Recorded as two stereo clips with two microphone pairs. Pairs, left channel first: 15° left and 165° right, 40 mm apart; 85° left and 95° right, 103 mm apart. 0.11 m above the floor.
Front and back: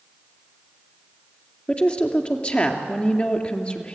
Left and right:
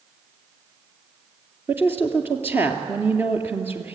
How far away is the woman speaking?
About 2 m.